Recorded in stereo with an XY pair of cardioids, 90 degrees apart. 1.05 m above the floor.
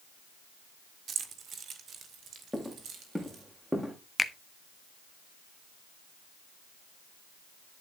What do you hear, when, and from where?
1.1 s keys jangling: 65° right, 1.6 m
2.5 s footsteps: straight ahead, 5.5 m
4.2 s a finger snap: 15° left, 1.1 m